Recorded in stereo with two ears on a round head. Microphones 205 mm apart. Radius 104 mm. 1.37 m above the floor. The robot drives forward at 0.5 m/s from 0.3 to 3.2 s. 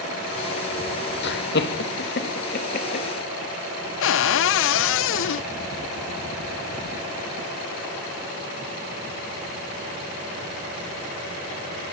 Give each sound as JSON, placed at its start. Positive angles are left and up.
{"t": 1.2, "sound": "laughter", "side_deg": 55, "distance_m": 2.5}
{"t": 4.0, "sound": "a cupboard door", "side_deg": 60, "distance_m": 0.6}